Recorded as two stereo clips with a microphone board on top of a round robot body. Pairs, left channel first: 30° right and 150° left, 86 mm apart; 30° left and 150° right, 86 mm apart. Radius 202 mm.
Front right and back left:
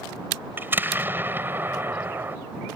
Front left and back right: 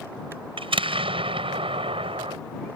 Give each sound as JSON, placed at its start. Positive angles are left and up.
{"t": 0.6, "sound": "an explosion", "azimuth_deg": -140}